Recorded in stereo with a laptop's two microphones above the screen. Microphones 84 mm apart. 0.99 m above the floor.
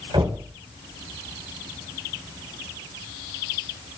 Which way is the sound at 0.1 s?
70° right (ahead or behind).